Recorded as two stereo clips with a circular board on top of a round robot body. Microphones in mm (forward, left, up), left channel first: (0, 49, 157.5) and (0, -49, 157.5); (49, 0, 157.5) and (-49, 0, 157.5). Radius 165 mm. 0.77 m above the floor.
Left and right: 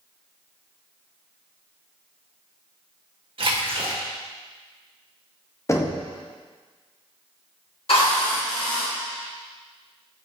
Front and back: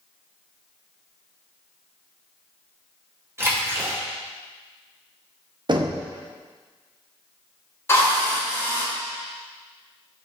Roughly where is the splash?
Behind right.